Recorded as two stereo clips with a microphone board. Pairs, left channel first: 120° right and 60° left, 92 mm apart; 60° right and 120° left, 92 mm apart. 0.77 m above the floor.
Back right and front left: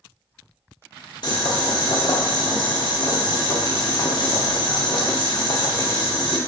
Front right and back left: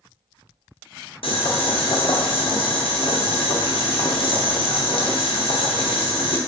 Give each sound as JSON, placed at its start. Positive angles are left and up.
{"t": 1.2, "sound": "boiling", "azimuth_deg": -85, "distance_m": 0.6}